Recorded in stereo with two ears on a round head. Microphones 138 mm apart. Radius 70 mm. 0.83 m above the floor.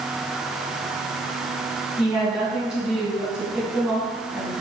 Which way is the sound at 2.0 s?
5° right (ahead or behind).